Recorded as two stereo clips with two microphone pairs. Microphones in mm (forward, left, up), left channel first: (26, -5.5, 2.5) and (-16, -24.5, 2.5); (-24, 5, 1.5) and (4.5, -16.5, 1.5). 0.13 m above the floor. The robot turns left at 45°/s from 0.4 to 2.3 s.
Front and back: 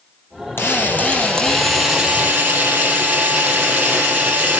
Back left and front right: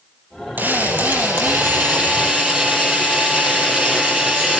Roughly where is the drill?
Ahead.